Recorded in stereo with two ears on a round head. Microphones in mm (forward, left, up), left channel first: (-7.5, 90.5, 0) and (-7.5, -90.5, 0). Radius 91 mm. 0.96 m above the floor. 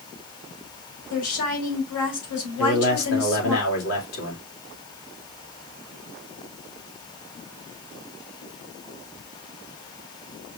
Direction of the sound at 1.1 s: 85° left.